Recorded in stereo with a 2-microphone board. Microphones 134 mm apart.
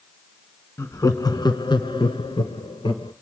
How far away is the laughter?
About 1.2 m.